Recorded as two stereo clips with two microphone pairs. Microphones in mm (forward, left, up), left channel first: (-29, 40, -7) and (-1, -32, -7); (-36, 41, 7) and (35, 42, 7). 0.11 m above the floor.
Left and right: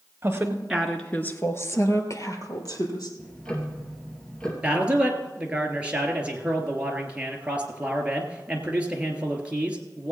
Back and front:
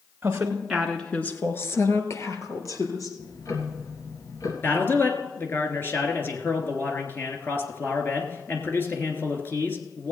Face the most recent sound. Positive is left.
turn(degrees=-135)